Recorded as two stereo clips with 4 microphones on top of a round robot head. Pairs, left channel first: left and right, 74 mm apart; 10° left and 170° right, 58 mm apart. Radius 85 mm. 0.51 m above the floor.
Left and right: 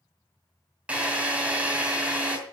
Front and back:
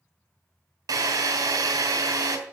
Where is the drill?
165° right, 2.5 m.